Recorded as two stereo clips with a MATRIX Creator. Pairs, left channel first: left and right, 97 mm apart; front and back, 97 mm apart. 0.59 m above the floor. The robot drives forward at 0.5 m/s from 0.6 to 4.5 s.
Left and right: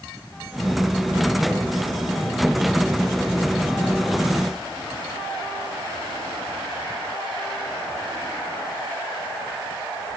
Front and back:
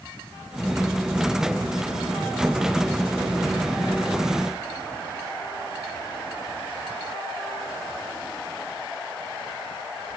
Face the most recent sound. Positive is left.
No sound to turn to.